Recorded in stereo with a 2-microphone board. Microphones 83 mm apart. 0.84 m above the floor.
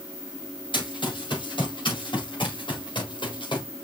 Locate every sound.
0.7 s running footsteps: 80° left, 5.5 m